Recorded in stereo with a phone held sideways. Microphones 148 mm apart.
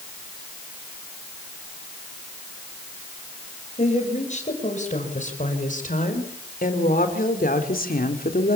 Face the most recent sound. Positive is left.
turn(degrees=85)